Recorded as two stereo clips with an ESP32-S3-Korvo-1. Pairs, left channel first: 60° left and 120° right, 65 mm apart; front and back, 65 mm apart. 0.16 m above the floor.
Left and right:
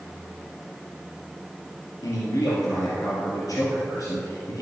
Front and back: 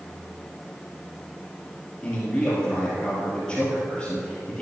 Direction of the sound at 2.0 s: 75° left.